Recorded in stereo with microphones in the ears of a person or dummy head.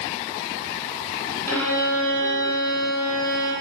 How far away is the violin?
About 1.3 m.